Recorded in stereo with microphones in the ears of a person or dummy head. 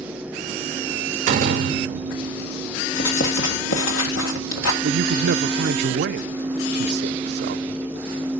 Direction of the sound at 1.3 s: 50° right (ahead or behind).